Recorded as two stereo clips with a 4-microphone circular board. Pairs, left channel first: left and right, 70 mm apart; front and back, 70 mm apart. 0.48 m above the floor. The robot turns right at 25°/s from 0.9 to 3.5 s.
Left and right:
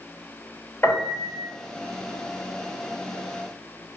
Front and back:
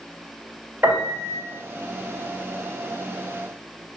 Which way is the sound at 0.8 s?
130° left.